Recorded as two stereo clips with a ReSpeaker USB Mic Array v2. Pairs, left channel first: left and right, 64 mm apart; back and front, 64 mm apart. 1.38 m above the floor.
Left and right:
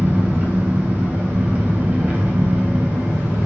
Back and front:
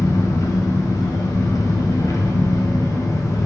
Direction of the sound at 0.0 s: 155° right.